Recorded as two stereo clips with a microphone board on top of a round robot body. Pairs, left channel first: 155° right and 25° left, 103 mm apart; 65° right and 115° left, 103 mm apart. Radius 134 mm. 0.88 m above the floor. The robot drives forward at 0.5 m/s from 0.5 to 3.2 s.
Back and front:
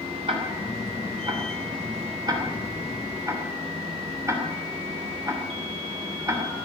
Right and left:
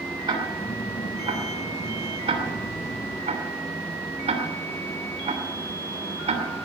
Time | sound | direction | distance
0.3 | ticking | 60° left | 3 m